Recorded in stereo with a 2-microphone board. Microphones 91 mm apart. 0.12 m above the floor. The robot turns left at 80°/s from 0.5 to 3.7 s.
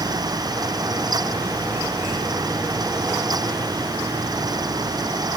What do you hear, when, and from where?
Only background noise.